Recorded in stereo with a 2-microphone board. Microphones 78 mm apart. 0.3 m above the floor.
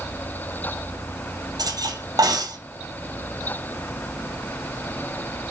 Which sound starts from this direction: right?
Cutlery clinking, at 1.6 s.